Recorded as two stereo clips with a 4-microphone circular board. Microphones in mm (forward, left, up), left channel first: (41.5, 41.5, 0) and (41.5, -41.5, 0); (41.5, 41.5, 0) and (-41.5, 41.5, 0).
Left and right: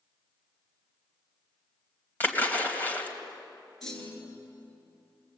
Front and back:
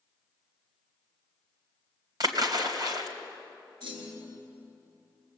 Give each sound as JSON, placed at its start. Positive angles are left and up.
{"t": 2.2, "sound": "a splash", "azimuth_deg": 155, "distance_m": 2.5}
{"t": 3.8, "sound": "a clunk", "azimuth_deg": 175, "distance_m": 5.5}